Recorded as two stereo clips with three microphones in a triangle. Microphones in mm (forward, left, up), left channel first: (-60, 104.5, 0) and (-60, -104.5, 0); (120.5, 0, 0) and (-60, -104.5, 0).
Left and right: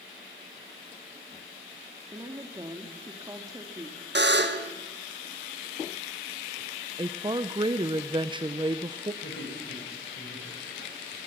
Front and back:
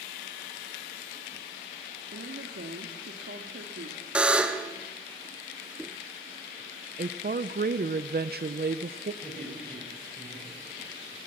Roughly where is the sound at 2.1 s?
Behind.